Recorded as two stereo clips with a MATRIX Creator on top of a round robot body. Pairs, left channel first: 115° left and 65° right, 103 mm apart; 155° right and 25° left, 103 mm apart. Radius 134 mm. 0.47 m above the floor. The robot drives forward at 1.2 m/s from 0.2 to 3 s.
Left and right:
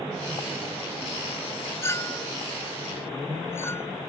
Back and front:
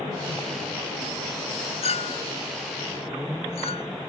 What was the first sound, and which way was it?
A clink, straight behind.